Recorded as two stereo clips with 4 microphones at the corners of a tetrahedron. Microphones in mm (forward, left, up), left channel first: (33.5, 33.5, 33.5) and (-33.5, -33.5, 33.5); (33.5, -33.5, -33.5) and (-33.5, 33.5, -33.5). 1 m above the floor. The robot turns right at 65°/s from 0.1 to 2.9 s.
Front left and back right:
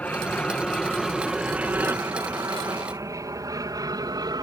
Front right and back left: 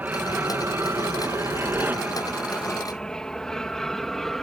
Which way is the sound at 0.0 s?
90° left.